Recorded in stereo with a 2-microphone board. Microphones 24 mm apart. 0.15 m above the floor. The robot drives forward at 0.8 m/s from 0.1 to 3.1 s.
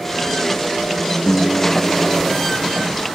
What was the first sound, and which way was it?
A guitar, 50° left (ahead or behind).